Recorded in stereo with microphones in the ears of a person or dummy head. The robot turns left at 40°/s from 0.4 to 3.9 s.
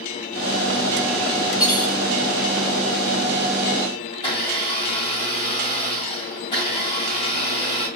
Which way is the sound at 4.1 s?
25° left (ahead or behind).